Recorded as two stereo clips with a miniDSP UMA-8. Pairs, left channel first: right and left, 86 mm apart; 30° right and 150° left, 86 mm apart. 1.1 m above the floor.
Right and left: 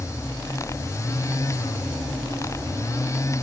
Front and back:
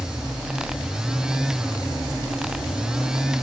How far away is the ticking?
I don't hear ticking.